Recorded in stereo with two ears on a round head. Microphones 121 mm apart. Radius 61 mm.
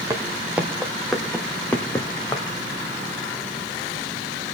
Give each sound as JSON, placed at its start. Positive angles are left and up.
{"t": 0.1, "sound": "footsteps", "side_deg": -20, "distance_m": 1.7}